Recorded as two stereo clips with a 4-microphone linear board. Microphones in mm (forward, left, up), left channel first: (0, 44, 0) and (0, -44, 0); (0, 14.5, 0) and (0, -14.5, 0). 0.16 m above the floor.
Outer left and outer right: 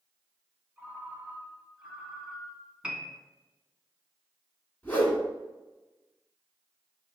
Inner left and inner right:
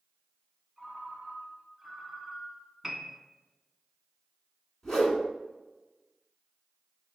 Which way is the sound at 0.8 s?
5° right (ahead or behind).